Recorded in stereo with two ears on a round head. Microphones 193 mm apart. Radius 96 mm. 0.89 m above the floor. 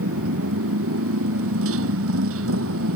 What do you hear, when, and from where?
0.0 s a motorcycle: 65° right (ahead or behind)